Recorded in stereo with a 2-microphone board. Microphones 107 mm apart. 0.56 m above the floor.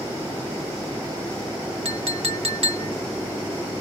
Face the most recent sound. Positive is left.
turn(degrees=-60)  # may be behind; listen again after turning